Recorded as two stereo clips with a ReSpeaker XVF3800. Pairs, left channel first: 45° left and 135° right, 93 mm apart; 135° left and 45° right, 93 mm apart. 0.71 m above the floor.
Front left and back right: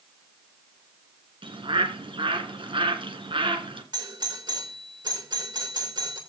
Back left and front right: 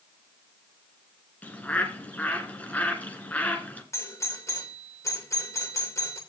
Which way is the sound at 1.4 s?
150° right.